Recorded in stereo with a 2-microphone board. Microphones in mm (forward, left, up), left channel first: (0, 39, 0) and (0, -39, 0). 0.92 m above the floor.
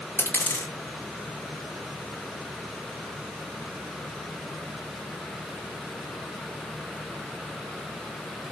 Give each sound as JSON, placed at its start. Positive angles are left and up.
{"t": 0.2, "sound": "a dropped coin", "side_deg": 25, "distance_m": 2.0}